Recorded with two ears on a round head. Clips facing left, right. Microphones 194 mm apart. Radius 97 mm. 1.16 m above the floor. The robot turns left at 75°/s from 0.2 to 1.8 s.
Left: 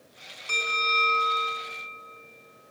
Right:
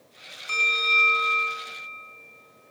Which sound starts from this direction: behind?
A bell, at 0.5 s.